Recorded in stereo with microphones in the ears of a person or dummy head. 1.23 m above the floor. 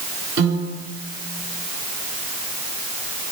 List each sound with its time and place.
0.4 s a piano: 75° right (ahead or behind), 5.5 m